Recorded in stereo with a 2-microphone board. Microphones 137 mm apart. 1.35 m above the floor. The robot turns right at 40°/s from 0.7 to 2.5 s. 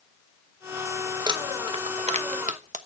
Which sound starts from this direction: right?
Crumpling, at 1.3 s.